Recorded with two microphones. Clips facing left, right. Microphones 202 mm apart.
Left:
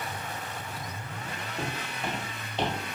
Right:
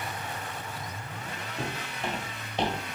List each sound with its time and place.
1.6 s footsteps: 5° left (ahead or behind), 2 m; by 2.8 s 15° right (ahead or behind), 1.9 m